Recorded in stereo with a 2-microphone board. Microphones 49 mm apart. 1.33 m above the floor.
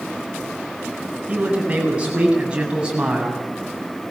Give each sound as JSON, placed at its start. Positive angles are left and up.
{"t": 1.3, "sound": "a man speaking", "side_deg": -25, "distance_m": 9.5}